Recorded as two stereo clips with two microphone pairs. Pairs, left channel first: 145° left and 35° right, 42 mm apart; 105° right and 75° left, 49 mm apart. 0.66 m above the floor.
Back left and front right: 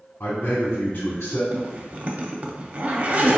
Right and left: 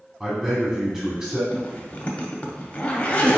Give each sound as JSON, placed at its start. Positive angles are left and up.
{"t": 0.2, "sound": "a man speaking", "azimuth_deg": 150, "distance_m": 1.2}
{"t": 1.5, "sound": "a zipper", "azimuth_deg": -55, "distance_m": 0.5}